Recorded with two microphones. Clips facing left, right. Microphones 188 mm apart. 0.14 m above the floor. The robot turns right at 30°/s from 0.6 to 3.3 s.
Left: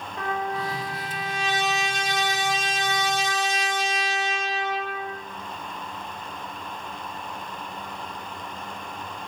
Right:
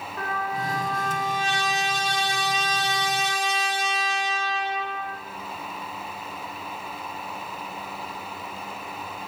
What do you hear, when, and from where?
0.2 s a trumpet: 160° left, 1.5 m; by 5.1 s 115° right, 1.5 m